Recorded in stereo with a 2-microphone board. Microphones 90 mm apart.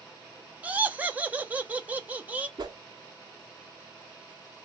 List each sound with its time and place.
0.6 s laughter: 15° right (ahead or behind), 0.5 m
2.6 s a whoosh: 45° right (ahead or behind), 0.6 m